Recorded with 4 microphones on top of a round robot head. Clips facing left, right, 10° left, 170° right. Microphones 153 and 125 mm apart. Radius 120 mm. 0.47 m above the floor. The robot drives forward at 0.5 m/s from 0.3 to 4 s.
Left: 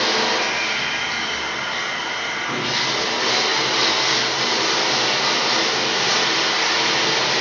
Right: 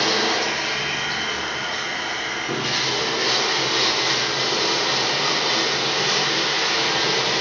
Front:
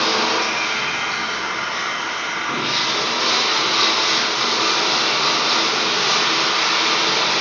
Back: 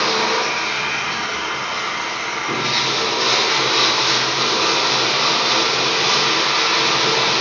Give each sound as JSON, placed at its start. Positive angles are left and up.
{"t": 0.0, "sound": "running water", "azimuth_deg": -60, "distance_m": 1.4}